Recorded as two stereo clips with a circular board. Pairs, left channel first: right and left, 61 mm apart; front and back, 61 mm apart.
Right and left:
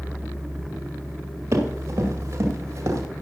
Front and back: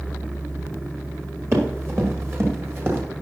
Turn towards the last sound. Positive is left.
turn(degrees=130)